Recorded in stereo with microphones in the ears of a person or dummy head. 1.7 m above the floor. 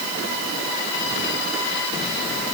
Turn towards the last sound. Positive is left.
No sound to turn to.